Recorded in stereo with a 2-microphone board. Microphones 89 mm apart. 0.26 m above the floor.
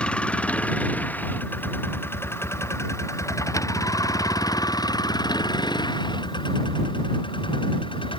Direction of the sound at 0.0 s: 15° left (ahead or behind).